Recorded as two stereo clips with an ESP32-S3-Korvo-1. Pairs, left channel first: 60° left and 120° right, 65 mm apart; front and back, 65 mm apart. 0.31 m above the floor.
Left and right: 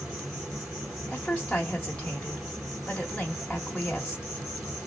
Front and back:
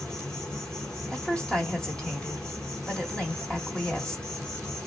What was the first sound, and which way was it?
An insect, 60° right.